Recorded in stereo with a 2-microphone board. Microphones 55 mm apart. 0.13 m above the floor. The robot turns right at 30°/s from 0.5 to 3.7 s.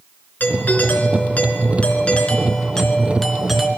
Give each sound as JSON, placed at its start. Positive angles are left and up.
{"t": 0.4, "sound": "a doorbell", "azimuth_deg": 90, "distance_m": 2.5}